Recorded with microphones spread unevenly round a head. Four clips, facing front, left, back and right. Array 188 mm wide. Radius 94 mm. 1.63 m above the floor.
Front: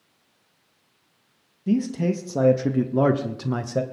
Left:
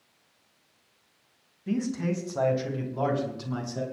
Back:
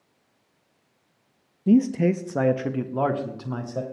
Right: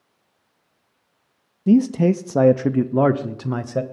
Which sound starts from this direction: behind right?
A man speaking, at 1.7 s.